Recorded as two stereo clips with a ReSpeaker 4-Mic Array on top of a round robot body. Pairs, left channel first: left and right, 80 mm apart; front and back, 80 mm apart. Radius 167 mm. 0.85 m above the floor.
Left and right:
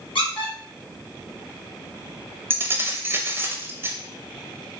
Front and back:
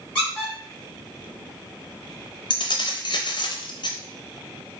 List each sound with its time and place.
0.1 s a squeak: 80° left, 2 m
2.5 s keys jangling: 25° right, 0.6 m